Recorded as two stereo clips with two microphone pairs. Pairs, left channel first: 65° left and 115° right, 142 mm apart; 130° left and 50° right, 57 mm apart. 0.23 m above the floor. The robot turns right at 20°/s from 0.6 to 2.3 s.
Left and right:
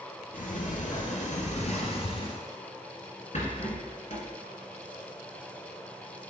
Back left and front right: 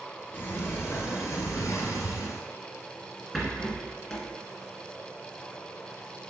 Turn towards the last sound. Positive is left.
turn(degrees=40)